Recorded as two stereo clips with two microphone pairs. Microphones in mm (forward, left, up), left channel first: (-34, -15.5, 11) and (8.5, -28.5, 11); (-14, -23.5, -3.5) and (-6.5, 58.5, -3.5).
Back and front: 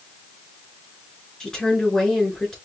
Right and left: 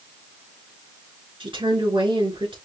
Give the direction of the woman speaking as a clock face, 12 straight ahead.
9 o'clock.